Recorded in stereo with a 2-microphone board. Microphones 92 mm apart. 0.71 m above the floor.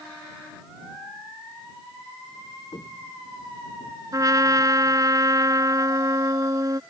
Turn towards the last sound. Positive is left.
turn(degrees=-40)  # may be behind; listen again after turning